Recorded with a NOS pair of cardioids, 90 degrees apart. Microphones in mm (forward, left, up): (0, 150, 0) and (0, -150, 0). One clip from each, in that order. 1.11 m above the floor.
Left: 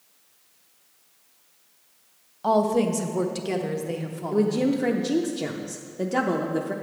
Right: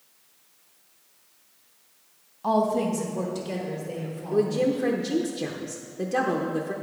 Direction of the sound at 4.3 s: 10° left.